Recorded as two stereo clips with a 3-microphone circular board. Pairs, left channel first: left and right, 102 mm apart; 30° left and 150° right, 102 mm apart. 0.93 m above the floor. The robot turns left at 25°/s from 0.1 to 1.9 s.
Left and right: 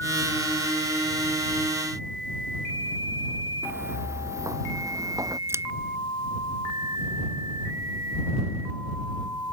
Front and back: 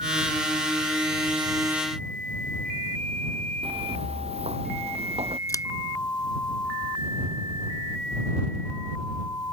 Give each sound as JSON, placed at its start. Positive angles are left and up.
{"t": 3.6, "sound": "footsteps", "azimuth_deg": -155}
{"t": 5.5, "sound": "scissors", "azimuth_deg": -25}